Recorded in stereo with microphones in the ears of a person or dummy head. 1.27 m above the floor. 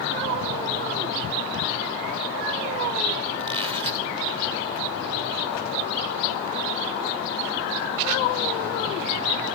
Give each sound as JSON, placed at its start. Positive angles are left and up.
{"t": 3.4, "sound": "a squeak", "side_deg": -25, "distance_m": 1.3}